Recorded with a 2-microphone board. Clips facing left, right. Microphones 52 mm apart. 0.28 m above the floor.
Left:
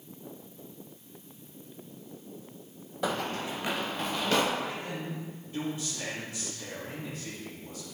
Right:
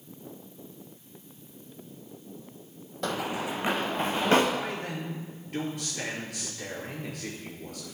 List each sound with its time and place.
3.0 s running footsteps: 10° left (ahead or behind), 0.6 m; by 4.4 s 30° right (ahead or behind), 2 m
4.5 s a man speaking: 75° right (ahead or behind), 4.5 m